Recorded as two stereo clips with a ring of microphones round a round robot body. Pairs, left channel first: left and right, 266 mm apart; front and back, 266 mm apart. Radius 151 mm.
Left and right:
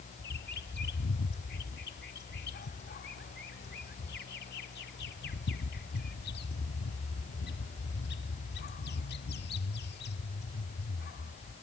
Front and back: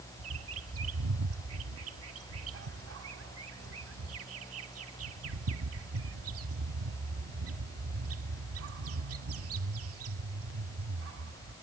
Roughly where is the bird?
Behind left.